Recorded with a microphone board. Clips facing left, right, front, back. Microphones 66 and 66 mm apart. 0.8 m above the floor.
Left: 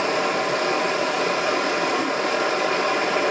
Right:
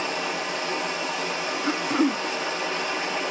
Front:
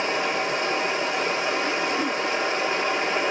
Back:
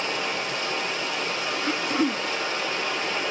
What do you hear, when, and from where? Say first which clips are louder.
0.0 s running water: left 6 dB, front 4 dB; 60° left, 1.4 m
1.7 s throat clearing: left 1 dB, even; 115° right, 0.6 m